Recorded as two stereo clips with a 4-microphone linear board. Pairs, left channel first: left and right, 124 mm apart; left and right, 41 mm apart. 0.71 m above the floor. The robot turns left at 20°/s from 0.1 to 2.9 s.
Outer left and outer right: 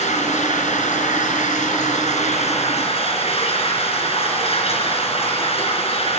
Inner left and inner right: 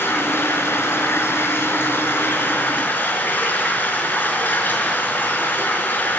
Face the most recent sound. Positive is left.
turn(degrees=55)